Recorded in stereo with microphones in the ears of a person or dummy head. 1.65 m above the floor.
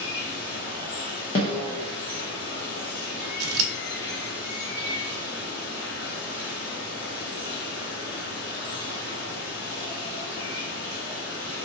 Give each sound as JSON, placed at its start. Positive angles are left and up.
{"t": 0.0, "sound": "running water", "side_deg": 45, "distance_m": 1.1}
{"t": 1.4, "sound": "a snare drum", "side_deg": 25, "distance_m": 0.5}
{"t": 3.4, "sound": "scissors", "side_deg": -85, "distance_m": 0.5}